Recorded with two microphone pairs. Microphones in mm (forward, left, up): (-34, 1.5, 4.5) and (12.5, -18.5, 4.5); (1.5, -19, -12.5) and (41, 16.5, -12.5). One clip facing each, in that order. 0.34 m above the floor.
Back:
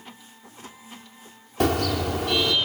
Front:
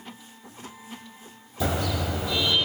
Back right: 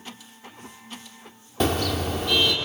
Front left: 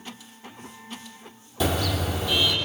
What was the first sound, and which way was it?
A car horn, straight behind.